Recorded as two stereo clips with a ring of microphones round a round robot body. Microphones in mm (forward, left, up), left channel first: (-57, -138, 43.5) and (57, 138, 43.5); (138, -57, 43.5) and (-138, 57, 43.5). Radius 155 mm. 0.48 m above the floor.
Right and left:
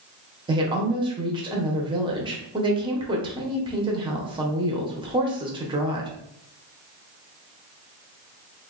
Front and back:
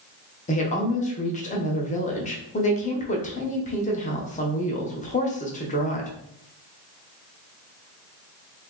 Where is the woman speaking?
10° left, 0.7 m.